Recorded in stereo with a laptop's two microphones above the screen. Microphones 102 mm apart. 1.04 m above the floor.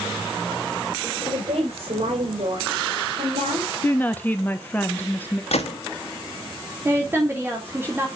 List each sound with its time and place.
1.2 s a woman speaking: 70° right (ahead or behind), 4.5 m; by 3.7 s 80° right, 3.5 m
3.8 s a woman speaking: 15° left (ahead or behind), 0.7 m
5.5 s a gunshot: 80° left, 1.6 m
6.8 s a woman speaking: 20° right (ahead or behind), 2.5 m